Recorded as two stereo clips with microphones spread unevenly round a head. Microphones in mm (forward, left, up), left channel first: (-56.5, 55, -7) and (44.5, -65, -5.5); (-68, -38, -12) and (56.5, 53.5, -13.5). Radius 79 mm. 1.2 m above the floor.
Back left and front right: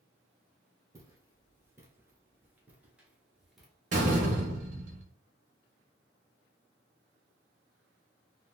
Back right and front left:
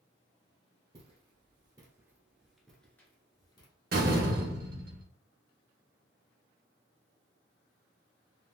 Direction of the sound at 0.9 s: 10° left.